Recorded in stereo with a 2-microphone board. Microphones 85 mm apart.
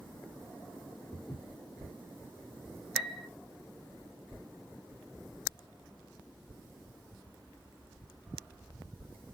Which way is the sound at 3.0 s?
5° right (ahead or behind).